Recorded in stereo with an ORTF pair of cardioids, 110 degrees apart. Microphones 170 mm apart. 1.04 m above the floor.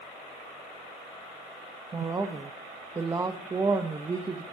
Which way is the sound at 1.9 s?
20° right.